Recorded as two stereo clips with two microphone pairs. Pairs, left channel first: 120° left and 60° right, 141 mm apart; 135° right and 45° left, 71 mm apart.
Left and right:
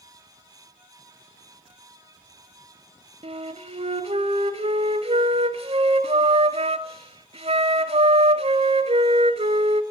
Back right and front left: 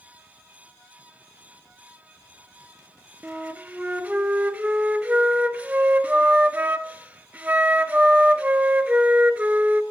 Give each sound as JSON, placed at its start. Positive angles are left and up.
{"t": 3.2, "sound": "a flute", "azimuth_deg": -25, "distance_m": 0.6}